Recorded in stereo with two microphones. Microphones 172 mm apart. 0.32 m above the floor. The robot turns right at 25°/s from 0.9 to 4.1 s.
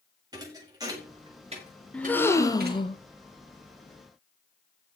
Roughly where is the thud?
Right.